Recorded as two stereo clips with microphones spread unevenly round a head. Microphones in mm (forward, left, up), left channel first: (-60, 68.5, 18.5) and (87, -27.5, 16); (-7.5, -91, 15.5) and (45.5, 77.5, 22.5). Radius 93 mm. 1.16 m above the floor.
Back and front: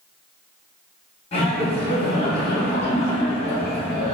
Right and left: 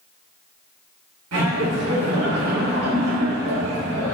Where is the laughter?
90° left, 1.4 m.